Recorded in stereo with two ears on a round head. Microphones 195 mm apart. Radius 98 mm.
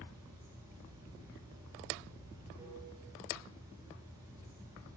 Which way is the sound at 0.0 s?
15° right (ahead or behind).